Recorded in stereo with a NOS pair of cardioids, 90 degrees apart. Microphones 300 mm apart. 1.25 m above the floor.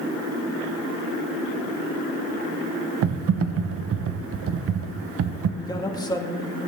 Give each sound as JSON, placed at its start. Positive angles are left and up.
{"t": 3.0, "sound": "typing on a keyboard", "azimuth_deg": -45, "distance_m": 0.8}
{"t": 5.6, "sound": "a man speaking", "azimuth_deg": 10, "distance_m": 1.7}